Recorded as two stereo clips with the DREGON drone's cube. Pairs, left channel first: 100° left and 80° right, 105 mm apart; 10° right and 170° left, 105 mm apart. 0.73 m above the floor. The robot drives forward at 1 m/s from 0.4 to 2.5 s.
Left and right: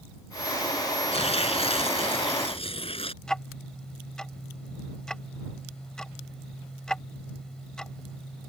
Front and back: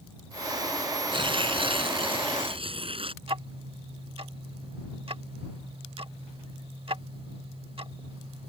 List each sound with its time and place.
1.1 s tearing paper: 125° left; by 3.1 s 135° left
3.2 s ticking: 175° right